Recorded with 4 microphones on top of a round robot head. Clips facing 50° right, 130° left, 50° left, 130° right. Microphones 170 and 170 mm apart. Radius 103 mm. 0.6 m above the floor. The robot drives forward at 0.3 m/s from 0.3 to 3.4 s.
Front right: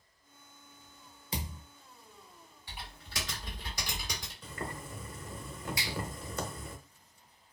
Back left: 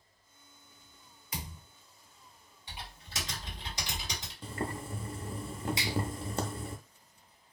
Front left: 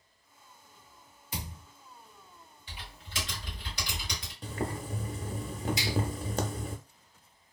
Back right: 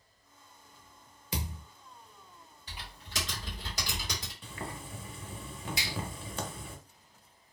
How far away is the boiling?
About 0.7 m.